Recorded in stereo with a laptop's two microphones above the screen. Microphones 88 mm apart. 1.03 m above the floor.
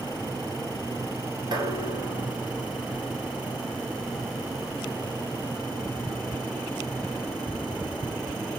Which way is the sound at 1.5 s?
60° right (ahead or behind).